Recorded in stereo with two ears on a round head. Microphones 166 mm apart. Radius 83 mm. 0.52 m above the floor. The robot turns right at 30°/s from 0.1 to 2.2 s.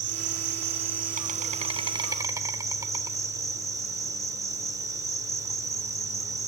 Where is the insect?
85° right, 1.0 m; by 6.5 s 20° right, 1.0 m.